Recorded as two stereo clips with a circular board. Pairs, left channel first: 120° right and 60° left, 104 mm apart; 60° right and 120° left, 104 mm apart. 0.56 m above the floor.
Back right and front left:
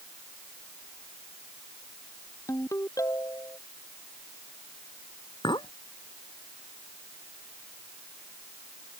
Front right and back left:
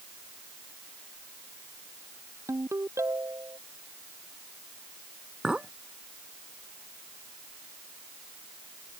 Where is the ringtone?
175° right.